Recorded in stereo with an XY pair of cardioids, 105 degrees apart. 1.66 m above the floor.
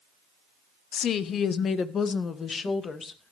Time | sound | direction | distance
0.9 | a woman speaking | 65° left | 1.2 m